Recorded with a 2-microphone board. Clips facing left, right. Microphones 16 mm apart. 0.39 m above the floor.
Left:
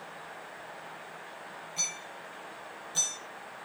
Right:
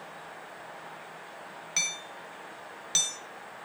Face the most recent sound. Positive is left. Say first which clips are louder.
# right 4 dB
turn(degrees=-70)  # may be behind; listen again after turning